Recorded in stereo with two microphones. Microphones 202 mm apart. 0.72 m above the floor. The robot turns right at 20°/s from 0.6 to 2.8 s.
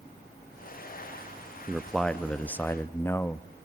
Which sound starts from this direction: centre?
A man speaking, at 1.7 s.